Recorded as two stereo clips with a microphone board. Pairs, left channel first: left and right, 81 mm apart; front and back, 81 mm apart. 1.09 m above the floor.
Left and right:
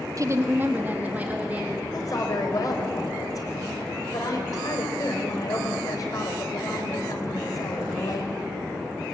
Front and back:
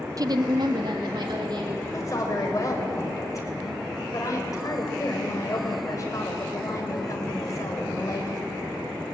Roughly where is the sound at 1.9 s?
Ahead left.